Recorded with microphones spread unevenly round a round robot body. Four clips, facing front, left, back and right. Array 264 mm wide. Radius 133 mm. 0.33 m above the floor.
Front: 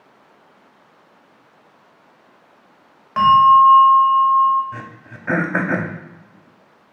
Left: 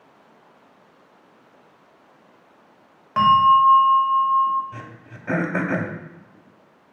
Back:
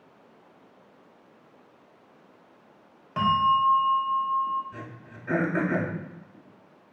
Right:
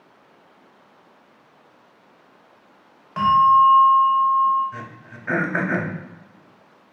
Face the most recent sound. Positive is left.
turn(degrees=15)